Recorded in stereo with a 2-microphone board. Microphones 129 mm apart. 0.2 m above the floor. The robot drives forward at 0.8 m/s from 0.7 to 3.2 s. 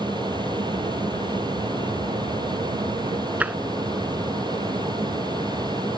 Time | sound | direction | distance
0.0 | an aircraft | 35° right (ahead or behind) | ?
3.4 | tapping | 10° right (ahead or behind) | ?